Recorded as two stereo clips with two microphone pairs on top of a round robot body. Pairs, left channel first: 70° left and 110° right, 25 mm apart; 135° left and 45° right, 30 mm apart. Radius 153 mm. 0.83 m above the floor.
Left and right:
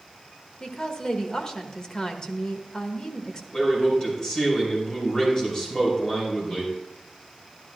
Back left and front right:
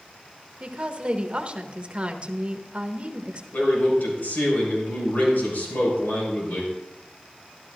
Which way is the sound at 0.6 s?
10° left.